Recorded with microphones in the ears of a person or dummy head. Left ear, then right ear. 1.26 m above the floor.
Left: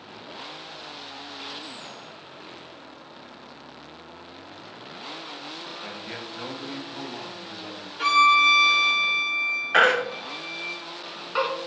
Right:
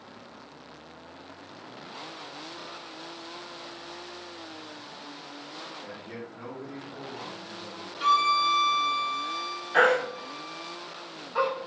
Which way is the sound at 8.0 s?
35° left (ahead or behind).